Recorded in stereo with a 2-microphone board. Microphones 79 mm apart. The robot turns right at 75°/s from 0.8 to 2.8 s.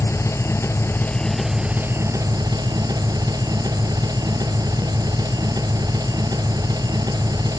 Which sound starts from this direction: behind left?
An engine running, at 0.0 s.